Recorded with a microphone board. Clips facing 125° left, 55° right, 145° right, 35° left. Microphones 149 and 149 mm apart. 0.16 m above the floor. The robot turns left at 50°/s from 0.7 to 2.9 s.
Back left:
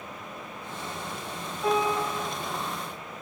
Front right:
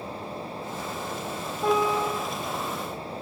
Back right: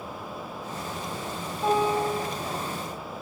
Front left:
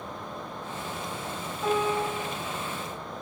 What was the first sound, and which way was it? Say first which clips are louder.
A piano: front right 2 dB, back right 3 dB; 70° right.